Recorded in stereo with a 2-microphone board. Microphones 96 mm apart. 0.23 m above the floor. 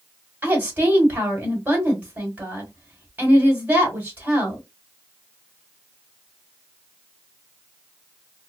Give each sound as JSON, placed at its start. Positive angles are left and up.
{"t": 0.4, "sound": "a woman speaking", "side_deg": -20, "distance_m": 1.6}